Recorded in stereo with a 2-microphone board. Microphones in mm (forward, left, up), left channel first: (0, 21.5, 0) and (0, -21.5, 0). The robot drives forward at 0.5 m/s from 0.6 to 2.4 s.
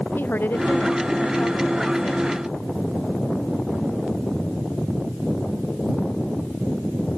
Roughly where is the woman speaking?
Left.